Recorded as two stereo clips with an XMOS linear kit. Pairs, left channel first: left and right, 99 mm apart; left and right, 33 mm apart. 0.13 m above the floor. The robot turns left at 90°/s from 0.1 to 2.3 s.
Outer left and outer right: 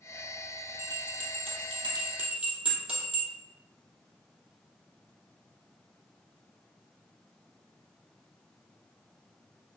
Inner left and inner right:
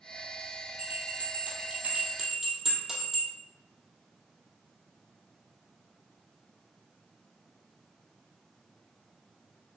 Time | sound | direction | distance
0.8 | a bell | 35° right (ahead or behind) | 2 m